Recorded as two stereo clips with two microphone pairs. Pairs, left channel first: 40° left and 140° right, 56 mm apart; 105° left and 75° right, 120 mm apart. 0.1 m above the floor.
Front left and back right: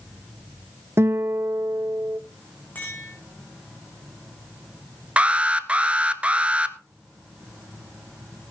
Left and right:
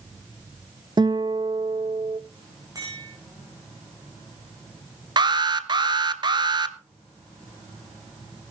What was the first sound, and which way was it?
A guitar, 120° right.